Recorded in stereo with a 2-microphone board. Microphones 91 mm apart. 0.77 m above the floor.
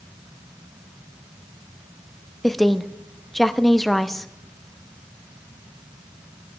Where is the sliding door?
No sliding door in this recording.